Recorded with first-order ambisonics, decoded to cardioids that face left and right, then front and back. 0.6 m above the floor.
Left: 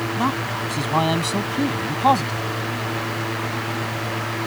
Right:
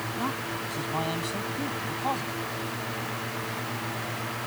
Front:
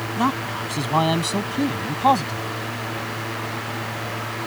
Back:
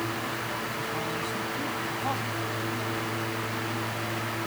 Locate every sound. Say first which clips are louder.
0.2 s a man speaking: left 8 dB, front 8 dB; 30° left; by 2.4 s 45° left